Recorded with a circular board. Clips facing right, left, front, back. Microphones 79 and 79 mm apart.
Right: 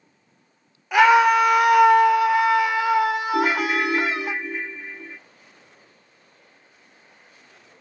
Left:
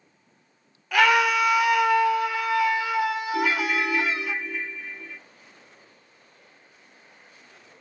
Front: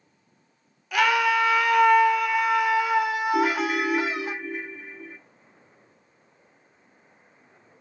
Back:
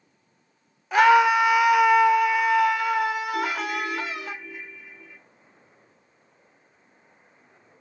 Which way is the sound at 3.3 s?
40° right.